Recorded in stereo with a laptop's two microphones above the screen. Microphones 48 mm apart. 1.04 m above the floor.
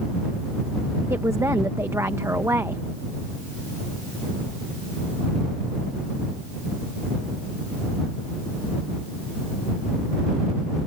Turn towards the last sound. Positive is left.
turn(degrees=-70)  # may be behind; listen again after turning